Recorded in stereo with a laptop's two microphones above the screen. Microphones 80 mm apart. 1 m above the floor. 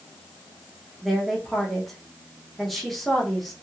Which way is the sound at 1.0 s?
Centre (ahead or behind).